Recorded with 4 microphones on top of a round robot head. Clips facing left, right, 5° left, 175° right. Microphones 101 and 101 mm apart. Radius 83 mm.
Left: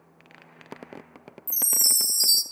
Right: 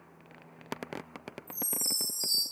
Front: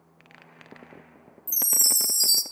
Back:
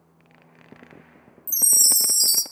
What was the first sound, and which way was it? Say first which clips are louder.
A chime: left 3 dB, back 1 dB; 115° left.